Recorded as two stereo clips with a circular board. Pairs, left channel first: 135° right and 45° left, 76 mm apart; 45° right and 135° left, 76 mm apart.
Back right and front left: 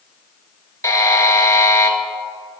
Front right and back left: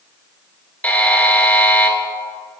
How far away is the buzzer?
About 0.6 m.